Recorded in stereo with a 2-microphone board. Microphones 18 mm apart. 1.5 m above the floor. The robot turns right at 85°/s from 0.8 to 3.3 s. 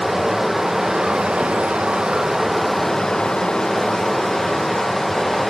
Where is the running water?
155° right, 0.8 m; by 5.5 s 55° left, 0.8 m.